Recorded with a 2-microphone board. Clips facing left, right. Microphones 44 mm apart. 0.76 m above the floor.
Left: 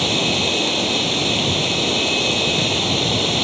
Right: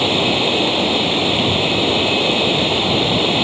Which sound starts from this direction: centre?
Running water, at 0.0 s.